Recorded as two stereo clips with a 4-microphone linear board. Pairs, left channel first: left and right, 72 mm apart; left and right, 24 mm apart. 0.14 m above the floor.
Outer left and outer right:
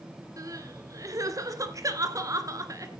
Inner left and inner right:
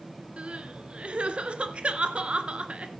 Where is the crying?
50° right (ahead or behind), 2 m.